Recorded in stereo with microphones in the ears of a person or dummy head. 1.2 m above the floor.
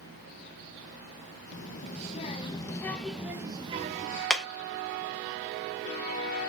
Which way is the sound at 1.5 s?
45° left (ahead or behind).